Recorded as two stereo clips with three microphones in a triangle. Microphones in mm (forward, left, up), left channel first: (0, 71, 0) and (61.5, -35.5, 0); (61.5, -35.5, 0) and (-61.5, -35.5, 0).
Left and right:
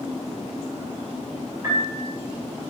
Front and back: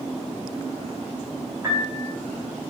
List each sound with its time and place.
1.6 s a piano: 120° right, 2.5 m